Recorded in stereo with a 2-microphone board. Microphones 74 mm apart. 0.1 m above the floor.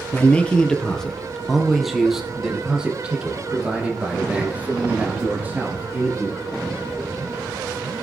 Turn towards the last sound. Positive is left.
turn(degrees=-25)  # may be behind; listen again after turning